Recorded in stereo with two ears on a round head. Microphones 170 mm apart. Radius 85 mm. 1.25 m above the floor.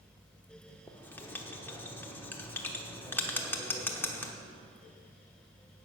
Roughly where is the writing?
Centre.